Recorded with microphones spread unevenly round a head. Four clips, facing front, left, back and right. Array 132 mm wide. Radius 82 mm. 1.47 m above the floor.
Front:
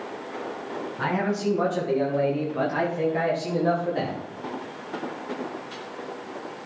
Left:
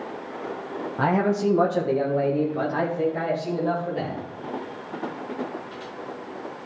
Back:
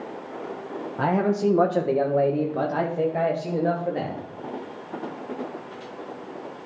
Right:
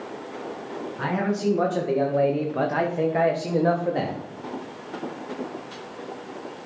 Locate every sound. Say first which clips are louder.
1.0 s a man speaking: left 4 dB, back 4 dB; 150° left, 1.4 m; by 4.2 s 125° right, 3 m